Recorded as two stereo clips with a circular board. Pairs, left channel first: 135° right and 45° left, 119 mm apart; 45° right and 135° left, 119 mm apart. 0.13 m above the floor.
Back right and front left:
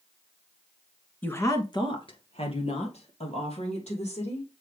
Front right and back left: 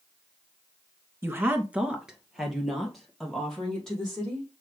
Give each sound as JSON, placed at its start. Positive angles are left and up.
{"t": 1.2, "sound": "a woman speaking", "azimuth_deg": 170, "distance_m": 1.3}